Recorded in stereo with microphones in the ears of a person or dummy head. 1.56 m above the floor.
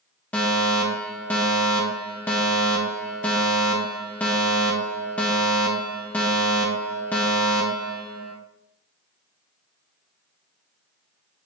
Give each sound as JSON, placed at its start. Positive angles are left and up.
{"t": 0.3, "sound": "a fire alarm", "side_deg": 10, "distance_m": 1.0}